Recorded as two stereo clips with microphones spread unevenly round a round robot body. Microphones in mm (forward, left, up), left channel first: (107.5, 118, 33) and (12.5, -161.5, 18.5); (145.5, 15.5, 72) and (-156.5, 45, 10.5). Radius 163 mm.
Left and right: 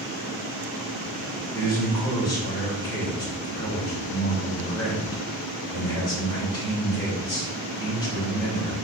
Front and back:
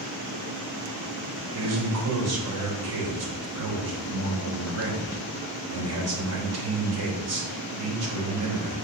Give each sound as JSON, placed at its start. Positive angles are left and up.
{"t": 1.5, "sound": "a man speaking", "azimuth_deg": 150, "distance_m": 3.0}